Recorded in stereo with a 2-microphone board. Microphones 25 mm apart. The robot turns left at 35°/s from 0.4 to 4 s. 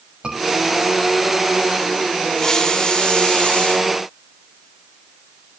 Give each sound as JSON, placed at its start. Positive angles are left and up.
{"t": 0.2, "sound": "a scream", "side_deg": -40, "distance_m": 6.5}
{"t": 2.4, "sound": "a hiss", "azimuth_deg": 165, "distance_m": 3.5}